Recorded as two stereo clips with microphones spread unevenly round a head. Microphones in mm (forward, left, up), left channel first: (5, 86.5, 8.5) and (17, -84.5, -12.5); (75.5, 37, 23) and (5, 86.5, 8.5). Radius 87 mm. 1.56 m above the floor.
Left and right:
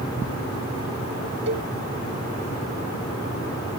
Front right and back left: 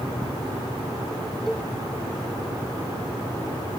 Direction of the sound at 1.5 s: 120° right.